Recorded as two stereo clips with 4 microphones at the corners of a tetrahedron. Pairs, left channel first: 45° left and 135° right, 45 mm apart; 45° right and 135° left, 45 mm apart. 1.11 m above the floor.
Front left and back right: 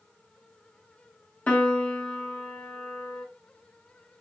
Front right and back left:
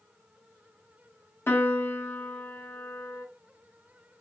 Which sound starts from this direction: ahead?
A piano, at 1.5 s.